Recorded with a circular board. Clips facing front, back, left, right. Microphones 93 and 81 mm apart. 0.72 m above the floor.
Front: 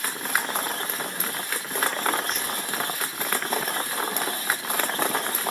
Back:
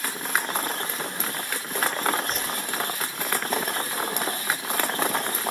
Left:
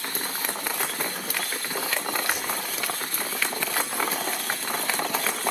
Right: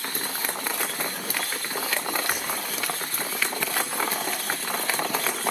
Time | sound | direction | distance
2.3 | a whoosh | 130° right | 7.5 m